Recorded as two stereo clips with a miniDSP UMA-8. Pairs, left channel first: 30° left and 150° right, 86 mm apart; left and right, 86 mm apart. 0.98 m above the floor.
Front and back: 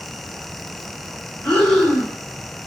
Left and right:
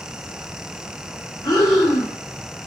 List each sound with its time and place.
1.4 s breathing: 115° left, 0.9 m